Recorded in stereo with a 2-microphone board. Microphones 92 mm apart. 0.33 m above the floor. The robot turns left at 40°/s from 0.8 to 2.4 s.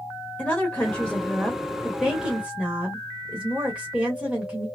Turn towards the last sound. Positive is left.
turn(degrees=-10)  # may be behind; listen again after turning